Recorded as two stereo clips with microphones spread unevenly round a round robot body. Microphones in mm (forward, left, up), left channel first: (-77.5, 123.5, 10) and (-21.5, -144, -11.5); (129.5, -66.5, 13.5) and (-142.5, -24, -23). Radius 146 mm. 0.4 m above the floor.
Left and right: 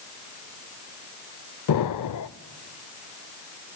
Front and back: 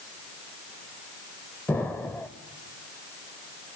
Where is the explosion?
80° left, 0.5 m.